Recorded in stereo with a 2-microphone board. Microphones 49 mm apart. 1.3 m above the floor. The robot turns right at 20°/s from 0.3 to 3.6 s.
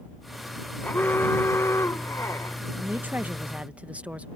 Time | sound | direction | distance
0.8 | an alarm | 40° left | ?
2.8 | a woman speaking | 45° right (ahead or behind) | ?